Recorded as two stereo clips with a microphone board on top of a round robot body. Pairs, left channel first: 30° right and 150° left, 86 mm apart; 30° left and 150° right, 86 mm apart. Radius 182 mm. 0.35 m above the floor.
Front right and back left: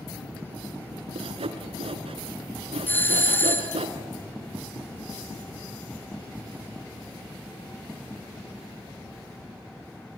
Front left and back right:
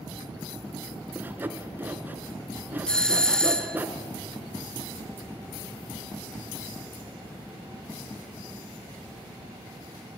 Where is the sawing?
140° left, 1.2 m.